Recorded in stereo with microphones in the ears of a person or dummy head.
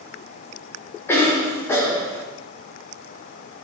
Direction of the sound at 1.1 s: 15° left (ahead or behind).